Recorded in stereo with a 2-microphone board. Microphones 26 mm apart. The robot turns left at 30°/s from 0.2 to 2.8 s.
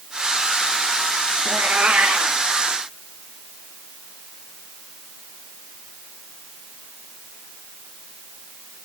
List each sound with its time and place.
1.4 s a cat meowing: 85° right, 3.5 m; by 2.4 s 65° right (ahead or behind), 3.5 m